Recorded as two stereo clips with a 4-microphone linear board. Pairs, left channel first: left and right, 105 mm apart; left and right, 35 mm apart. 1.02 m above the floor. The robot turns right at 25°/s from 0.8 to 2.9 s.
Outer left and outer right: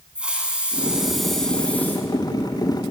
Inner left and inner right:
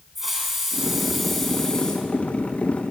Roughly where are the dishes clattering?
No dishes clattering in this recording.